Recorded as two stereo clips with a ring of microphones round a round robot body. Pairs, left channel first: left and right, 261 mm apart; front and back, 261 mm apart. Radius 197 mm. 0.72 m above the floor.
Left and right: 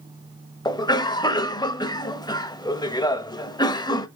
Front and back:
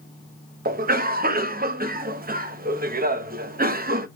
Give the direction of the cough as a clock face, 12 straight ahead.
7 o'clock.